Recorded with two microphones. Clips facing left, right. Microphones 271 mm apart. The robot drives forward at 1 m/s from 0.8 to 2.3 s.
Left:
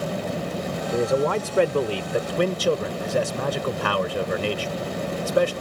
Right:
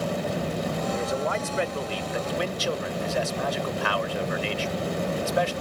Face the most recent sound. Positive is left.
turn(degrees=55)  # may be behind; listen again after turning